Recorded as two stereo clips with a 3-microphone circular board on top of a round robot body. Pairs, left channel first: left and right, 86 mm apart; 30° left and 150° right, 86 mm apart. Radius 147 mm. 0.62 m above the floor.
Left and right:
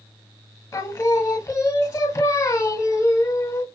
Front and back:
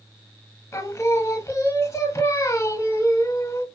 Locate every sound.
0.7 s singing: 60° left, 1.1 m